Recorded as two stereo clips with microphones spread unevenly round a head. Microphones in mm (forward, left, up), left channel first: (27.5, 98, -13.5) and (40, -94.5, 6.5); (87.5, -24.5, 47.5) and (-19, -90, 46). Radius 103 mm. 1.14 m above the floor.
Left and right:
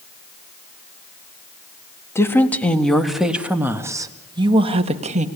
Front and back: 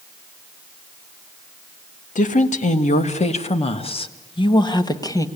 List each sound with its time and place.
2.1 s a woman speaking: 20° left, 2 m; by 5.3 s 30° right, 2.0 m